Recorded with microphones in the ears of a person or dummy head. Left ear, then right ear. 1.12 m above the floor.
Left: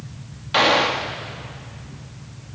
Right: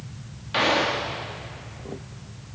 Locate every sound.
0.5 s a gunshot: 25° left (ahead or behind), 1.5 m